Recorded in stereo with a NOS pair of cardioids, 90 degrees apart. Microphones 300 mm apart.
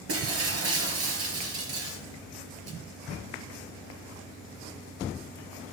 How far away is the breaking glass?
About 3.5 m.